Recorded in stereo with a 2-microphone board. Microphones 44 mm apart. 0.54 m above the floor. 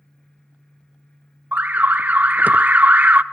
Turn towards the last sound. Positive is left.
turn(degrees=-40)  # may be behind; listen again after turning